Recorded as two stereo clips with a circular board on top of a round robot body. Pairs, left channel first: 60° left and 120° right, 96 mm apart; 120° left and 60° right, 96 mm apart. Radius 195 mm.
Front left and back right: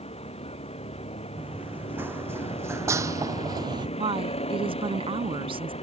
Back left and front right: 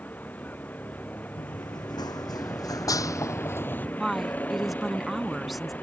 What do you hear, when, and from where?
0.0 s a vehicle: 45° left
1.4 s running footsteps: 165° left; by 3.9 s 165° right
4.0 s a woman speaking: 150° right